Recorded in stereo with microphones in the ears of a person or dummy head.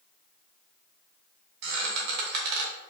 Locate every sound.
1.6 s a squeak: 60° right (ahead or behind), 0.7 m